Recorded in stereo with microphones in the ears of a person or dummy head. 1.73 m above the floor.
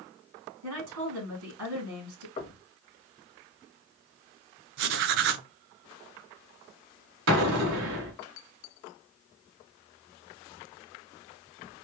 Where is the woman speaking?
85° right, 3 m.